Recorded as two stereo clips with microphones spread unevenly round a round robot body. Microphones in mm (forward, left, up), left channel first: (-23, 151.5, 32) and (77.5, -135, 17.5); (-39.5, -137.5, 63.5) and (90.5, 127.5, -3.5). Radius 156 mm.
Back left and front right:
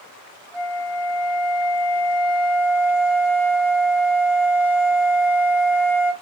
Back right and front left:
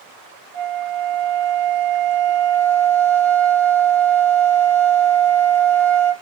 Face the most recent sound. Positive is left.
turn(degrees=100)